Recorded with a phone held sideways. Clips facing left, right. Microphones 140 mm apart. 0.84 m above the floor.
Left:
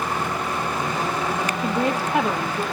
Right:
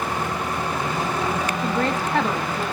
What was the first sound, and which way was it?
A woman speaking, 10° left (ahead or behind).